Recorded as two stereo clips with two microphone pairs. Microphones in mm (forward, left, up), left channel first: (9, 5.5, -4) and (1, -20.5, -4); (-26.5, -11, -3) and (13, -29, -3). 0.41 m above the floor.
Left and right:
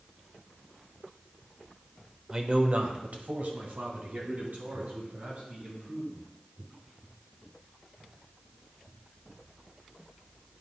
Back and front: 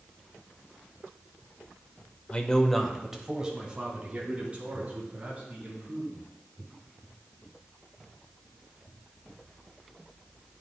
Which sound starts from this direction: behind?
A man speaking, at 2.3 s.